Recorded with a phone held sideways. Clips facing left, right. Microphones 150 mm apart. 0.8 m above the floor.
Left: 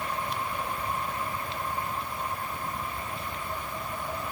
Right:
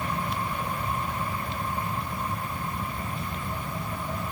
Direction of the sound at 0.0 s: 65° right (ahead or behind).